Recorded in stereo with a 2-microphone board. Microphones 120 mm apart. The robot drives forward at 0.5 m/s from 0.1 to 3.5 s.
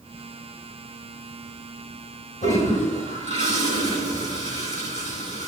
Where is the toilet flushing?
80° left, 3 m; by 5.5 s 70° left (ahead or behind), 3 m.